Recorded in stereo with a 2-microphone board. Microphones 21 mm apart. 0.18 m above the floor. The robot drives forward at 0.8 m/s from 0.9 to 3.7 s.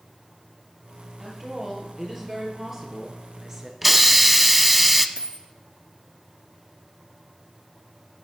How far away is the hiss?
About 0.5 m.